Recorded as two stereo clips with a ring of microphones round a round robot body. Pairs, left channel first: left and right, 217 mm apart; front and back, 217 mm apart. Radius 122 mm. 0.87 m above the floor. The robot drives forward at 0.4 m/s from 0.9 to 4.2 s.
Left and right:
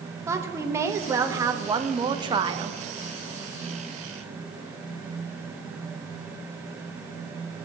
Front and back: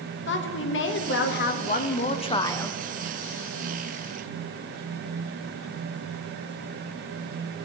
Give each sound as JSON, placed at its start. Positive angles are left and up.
{"t": 0.3, "sound": "a woman speaking", "azimuth_deg": -15, "distance_m": 1.0}